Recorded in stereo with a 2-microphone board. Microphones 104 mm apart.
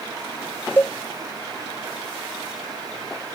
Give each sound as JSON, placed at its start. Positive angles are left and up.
{"t": 0.8, "sound": "a cowbell", "side_deg": 20}